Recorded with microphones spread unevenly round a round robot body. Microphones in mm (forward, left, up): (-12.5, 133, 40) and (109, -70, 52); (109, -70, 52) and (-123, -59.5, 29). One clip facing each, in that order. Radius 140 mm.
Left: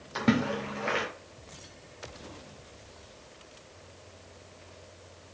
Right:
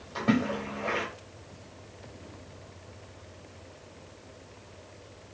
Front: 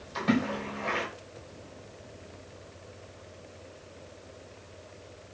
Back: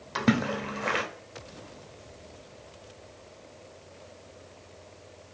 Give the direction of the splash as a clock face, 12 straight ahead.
6 o'clock.